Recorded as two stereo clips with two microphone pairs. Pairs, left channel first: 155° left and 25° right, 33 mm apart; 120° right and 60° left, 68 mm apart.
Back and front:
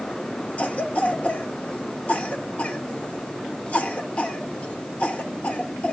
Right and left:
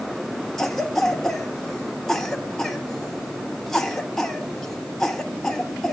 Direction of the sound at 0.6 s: 160° left.